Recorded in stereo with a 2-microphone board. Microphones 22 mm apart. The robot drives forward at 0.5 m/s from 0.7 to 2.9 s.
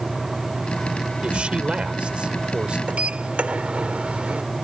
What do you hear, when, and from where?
1.2 s a man speaking: 65° right (ahead or behind); by 2.8 s 55° right (ahead or behind)
2.9 s a sliding door: 80° right